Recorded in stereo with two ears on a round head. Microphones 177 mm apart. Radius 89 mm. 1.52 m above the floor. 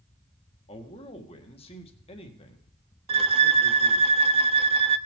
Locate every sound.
0.7 s a man speaking: 30° left (ahead or behind), 1.5 m
3.1 s a violin: 30° right (ahead or behind), 0.6 m